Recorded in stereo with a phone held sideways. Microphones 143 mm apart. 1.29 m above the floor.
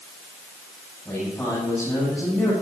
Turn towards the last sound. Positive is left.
turn(degrees=5)  # may be behind; listen again after turning